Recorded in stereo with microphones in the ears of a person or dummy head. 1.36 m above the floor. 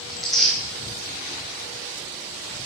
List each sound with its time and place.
0.1 s tearing paper: centre (ahead or behind), 1.2 m